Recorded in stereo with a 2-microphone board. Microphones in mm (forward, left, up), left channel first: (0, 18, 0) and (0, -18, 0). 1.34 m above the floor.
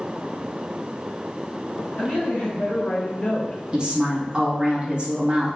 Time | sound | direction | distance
2.0 | a woman speaking | 55° left (ahead or behind) | 0.8 m
3.7 | a woman speaking | 25° right (ahead or behind) | 1.0 m